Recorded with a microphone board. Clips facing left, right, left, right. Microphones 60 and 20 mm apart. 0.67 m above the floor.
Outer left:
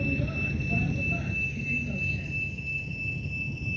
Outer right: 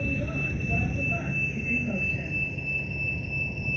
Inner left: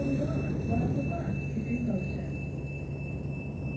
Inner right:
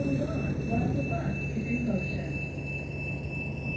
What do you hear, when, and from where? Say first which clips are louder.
0.0 s a vehicle: even, inner right 1 dB; 10° right (ahead or behind); by 3.8 s 45° right (ahead or behind)